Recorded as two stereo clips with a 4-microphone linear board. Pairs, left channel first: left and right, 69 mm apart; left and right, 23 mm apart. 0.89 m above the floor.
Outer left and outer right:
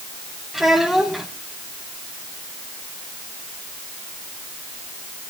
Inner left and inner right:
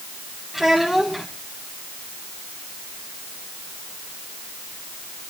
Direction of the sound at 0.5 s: 5° right (ahead or behind).